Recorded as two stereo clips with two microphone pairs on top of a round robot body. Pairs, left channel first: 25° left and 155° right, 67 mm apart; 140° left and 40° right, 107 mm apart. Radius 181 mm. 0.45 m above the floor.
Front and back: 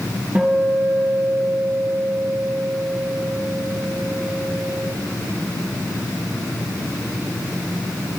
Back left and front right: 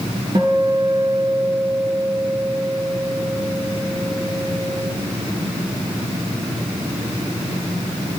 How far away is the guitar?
About 2.5 m.